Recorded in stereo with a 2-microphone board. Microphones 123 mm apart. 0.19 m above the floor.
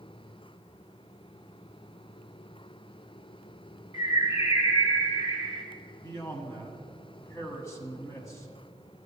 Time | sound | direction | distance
3.9 | a bird | 40° left (ahead or behind) | 1.5 m
6.0 | a man speaking | 25° left (ahead or behind) | 1.4 m